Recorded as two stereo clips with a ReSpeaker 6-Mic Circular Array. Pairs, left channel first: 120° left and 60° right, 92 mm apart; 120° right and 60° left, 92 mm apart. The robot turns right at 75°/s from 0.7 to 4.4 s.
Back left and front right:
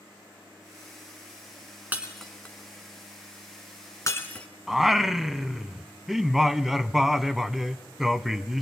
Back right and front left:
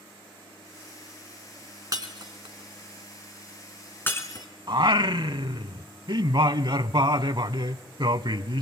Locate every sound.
1.9 s breaking glass: 10° left, 2 m; by 4.5 s 160° right, 2 m
4.7 s singing: 25° left, 0.6 m